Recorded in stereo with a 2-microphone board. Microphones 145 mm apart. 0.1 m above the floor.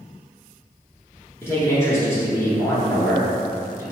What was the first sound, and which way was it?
A man speaking, 20° left (ahead or behind).